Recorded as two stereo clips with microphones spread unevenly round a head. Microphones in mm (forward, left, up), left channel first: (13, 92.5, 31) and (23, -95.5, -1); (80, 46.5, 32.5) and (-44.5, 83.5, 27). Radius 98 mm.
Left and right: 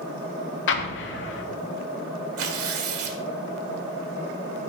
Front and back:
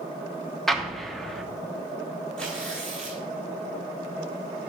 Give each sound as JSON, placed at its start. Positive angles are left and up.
{"t": 0.7, "sound": "an explosion", "azimuth_deg": 75, "distance_m": 1.0}
{"t": 2.4, "sound": "tearing paper", "azimuth_deg": -100, "distance_m": 1.5}